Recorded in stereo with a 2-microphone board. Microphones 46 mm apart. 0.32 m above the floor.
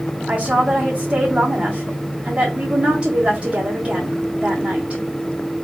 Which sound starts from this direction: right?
A woman speaking, at 0.3 s.